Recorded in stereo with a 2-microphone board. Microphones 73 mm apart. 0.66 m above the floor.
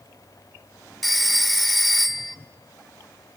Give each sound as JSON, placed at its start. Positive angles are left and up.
{"t": 1.0, "sound": "a phone ringing", "side_deg": 0, "distance_m": 1.5}